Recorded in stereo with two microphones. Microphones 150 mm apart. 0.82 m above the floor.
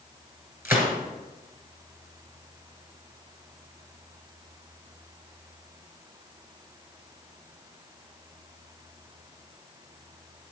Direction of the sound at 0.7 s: 15° right (ahead or behind).